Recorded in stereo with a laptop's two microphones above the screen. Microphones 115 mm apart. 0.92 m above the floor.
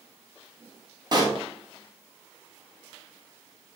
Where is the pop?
35° right (ahead or behind), 1.1 m.